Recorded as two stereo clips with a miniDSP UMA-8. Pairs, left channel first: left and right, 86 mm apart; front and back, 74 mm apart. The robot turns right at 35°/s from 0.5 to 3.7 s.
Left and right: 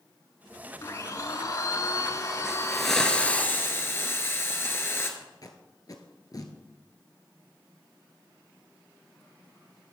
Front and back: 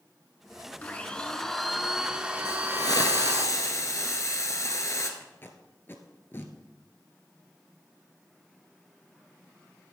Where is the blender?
60° left, 0.9 m; by 3.5 s 150° left, 0.9 m.